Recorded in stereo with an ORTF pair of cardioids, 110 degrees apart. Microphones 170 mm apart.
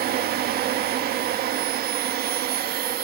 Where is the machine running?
65° right, 1.7 m.